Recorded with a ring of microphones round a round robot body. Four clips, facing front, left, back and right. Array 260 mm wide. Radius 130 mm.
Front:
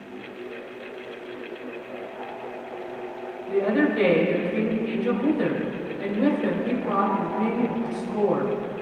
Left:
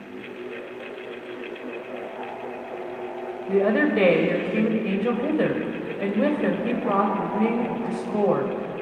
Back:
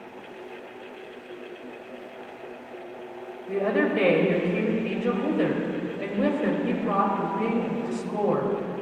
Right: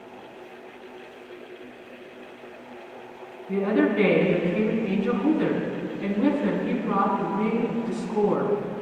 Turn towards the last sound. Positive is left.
turn(degrees=100)